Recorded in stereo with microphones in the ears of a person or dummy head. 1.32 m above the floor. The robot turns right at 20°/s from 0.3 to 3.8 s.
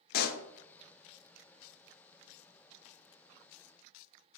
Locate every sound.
0.1 s a pop: 50° left (ahead or behind), 0.9 m